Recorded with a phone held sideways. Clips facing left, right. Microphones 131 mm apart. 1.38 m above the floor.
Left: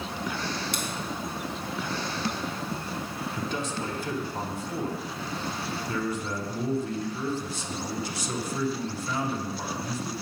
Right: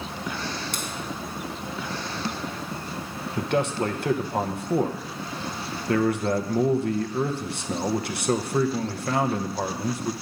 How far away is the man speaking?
About 0.7 m.